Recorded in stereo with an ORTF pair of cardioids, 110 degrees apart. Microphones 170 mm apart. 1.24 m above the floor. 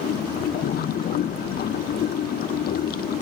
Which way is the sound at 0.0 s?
60° left.